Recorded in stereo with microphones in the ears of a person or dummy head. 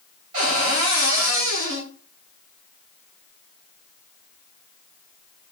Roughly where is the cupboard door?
Right.